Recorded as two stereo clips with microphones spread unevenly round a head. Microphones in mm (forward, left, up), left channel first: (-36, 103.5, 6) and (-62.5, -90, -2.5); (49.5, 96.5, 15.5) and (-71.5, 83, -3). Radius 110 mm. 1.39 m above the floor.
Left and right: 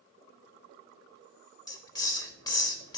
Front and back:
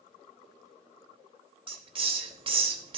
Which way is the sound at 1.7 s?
145° left.